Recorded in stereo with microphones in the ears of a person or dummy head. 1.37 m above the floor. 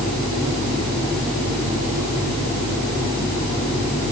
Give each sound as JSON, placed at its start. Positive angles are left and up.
{"t": 0.0, "sound": "a fan", "side_deg": 20}